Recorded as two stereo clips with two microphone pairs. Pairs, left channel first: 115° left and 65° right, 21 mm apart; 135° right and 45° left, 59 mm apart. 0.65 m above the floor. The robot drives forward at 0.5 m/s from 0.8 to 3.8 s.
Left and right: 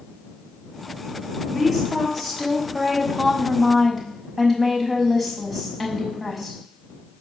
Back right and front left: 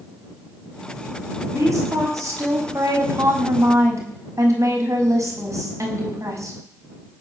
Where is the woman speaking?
15° left, 7 m; by 6.6 s 20° left, 5.5 m.